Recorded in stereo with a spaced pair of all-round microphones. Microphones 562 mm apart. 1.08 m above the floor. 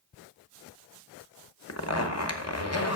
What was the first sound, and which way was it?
A zipper, 30° left (ahead or behind).